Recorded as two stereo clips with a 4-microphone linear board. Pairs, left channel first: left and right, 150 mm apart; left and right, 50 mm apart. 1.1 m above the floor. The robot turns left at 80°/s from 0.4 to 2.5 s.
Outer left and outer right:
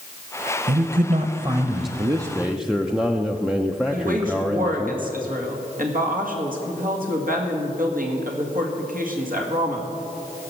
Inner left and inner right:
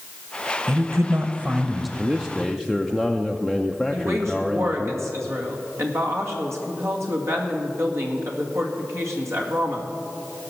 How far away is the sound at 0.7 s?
About 0.8 m.